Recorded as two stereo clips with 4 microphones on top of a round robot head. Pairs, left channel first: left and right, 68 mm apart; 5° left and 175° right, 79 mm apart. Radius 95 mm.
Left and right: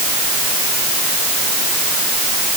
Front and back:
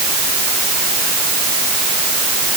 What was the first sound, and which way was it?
Only background noise.